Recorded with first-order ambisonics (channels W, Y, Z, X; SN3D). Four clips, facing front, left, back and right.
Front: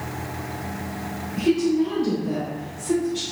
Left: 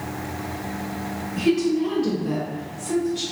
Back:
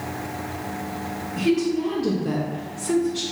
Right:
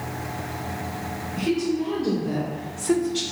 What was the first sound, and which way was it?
A woman speaking, 135° left.